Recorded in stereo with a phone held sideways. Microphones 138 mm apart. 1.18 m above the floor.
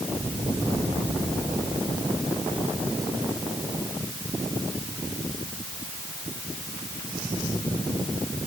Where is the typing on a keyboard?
No typing on a keyboard in this recording.